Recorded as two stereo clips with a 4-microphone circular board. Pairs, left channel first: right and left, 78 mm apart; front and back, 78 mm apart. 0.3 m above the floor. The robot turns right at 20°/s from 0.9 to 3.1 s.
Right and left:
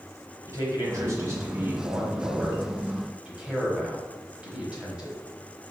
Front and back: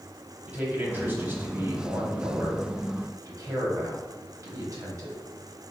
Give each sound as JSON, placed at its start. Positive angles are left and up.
{"t": 0.5, "sound": "a man speaking", "azimuth_deg": 120, "distance_m": 1.4}